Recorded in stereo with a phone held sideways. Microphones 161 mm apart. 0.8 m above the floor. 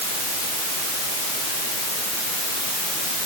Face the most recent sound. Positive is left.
No sound to turn to.